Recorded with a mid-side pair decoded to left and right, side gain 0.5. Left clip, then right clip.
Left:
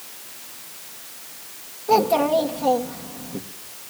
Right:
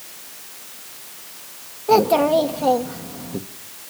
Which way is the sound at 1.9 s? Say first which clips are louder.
Right 3 dB; 25° right.